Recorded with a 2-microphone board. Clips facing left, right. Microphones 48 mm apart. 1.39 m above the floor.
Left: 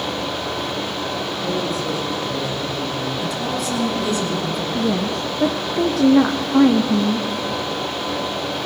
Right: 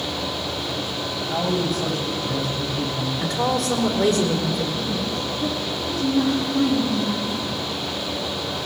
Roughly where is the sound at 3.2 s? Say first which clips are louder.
Right 1 dB; right.